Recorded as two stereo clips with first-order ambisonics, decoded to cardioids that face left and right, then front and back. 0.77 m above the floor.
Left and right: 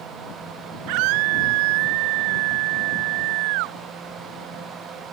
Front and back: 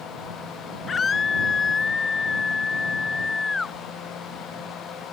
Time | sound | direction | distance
0.9 | a scream | 75° right | ?